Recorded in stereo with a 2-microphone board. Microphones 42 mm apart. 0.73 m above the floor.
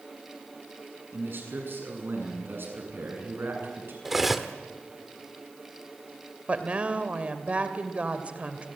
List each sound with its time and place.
1.1 s a man speaking: 60° right (ahead or behind), 7 m
4.0 s cutlery clinking: 5° right (ahead or behind), 1.4 m
6.5 s a woman speaking: 30° right (ahead or behind), 2.5 m